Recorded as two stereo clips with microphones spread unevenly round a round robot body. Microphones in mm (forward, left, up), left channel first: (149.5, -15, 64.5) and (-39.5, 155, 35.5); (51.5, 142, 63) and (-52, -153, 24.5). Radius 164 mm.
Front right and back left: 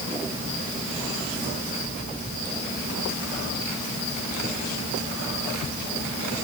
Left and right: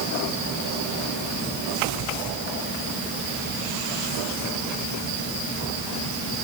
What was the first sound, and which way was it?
Only background noise.